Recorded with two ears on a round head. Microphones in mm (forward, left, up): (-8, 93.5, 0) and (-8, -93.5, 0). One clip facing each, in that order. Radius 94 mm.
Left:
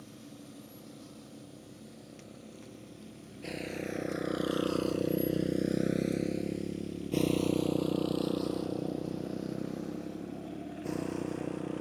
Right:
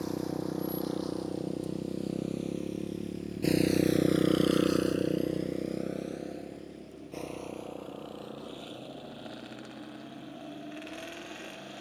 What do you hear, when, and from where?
0.0 s a motorcycle: 90° right; by 11.8 s 65° left (ahead or behind)